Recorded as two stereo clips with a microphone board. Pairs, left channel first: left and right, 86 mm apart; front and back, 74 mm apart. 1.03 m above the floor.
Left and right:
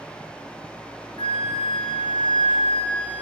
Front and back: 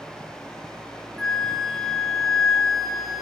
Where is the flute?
85° left, 0.7 m.